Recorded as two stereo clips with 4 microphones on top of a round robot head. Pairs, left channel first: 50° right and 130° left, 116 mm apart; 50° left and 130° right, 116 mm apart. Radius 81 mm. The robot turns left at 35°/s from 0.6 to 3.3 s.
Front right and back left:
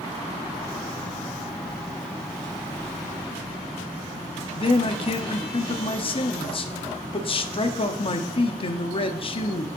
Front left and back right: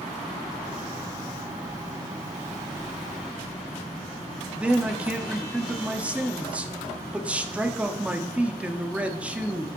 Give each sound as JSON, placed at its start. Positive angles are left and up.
{"t": 4.5, "sound": "a man speaking", "azimuth_deg": -55, "distance_m": 1.1}